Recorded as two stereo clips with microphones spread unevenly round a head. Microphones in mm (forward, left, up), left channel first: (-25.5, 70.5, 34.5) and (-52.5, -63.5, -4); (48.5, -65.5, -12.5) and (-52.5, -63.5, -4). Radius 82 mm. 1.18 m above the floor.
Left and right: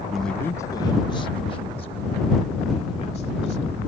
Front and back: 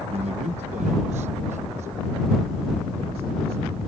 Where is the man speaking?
175° right; by 3.8 s 120° left.